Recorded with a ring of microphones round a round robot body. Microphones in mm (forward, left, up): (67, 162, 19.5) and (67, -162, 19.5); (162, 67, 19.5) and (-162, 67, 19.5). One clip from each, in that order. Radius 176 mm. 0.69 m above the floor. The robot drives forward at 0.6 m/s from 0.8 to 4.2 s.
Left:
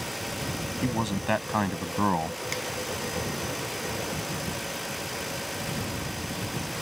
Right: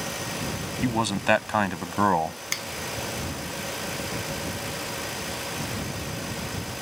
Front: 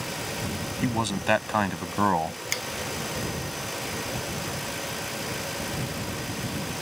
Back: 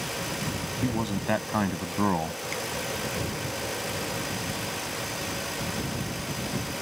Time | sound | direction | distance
0.8 | a man speaking | 55° right | ?
2.5 | a finger snap | 50° right | ?